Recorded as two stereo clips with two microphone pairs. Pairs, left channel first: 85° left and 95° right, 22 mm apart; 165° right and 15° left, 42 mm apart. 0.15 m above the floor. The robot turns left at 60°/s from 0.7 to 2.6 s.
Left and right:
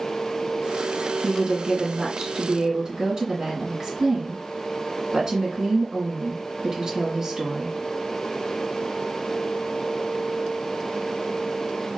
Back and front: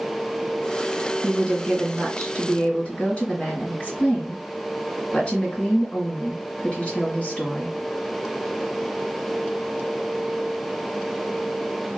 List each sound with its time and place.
1.2 s a woman speaking: 50° right, 1.9 m; by 7.8 s 135° right, 1.9 m